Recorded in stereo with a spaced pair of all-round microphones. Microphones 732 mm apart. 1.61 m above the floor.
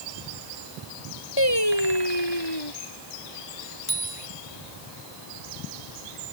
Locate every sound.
1.4 s singing: 35° left (ahead or behind)
3.9 s a bicycle bell: 45° left (ahead or behind)